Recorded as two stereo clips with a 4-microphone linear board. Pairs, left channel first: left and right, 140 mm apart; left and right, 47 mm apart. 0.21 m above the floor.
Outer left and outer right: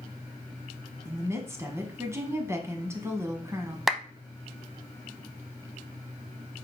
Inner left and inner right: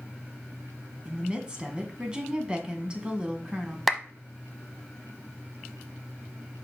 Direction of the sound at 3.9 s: Centre (ahead or behind).